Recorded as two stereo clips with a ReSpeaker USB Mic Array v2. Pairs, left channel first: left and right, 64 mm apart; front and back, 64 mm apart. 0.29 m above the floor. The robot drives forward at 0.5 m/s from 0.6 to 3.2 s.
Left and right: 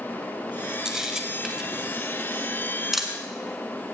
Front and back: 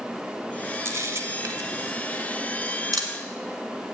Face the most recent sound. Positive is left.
turn(degrees=-175)